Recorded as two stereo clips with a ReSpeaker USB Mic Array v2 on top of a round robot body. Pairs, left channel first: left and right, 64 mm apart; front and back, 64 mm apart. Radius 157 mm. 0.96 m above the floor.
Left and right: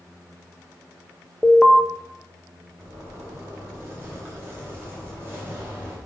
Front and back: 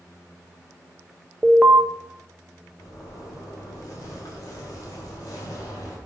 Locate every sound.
1.4 s an alarm: 160° left, 1.3 m
2.8 s a zipper: 30° right, 2.5 m